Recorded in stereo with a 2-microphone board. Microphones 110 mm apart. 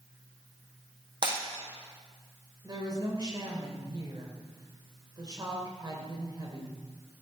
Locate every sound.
1.2 s breaking glass: 45° right (ahead or behind), 3.5 m
2.6 s a woman speaking: 35° right (ahead or behind), 2.5 m